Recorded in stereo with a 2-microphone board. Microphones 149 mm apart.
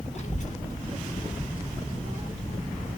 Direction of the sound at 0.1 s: 50° left (ahead or behind).